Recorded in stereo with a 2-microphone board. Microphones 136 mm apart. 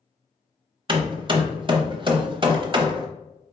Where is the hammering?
35° right (ahead or behind), 0.7 m.